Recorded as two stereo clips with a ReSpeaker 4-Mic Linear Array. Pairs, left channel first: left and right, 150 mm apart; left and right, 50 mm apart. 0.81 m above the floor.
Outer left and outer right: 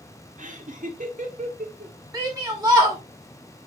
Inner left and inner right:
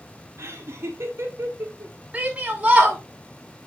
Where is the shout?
25° right (ahead or behind), 1.8 m.